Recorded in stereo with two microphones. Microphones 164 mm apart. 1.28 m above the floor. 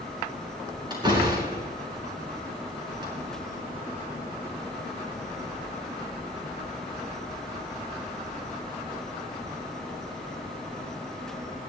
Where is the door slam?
25° right (ahead or behind), 8 m.